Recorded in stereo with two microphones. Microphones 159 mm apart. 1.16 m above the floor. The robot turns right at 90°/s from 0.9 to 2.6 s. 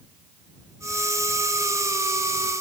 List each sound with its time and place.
Only background noise.